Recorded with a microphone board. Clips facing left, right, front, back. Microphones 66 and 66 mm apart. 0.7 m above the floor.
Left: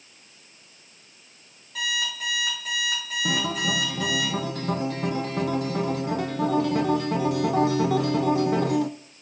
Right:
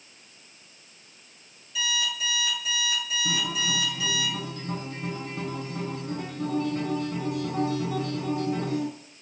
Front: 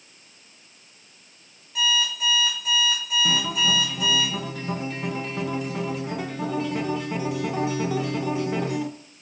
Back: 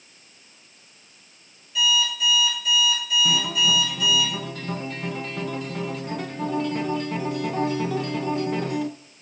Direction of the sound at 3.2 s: 85° left.